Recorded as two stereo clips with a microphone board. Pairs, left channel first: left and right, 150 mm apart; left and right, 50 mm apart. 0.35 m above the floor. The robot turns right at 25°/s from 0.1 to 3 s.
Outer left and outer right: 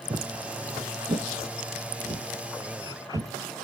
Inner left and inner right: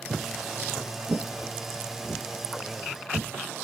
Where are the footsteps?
45° right (ahead or behind), 0.6 m; by 3.3 s 80° right, 2.5 m.